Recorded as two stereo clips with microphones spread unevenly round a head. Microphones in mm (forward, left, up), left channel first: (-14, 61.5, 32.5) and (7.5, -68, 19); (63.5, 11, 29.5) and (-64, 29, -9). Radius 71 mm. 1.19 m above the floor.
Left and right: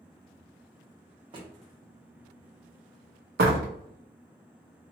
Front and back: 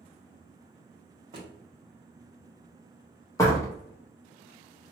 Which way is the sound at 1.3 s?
130° right.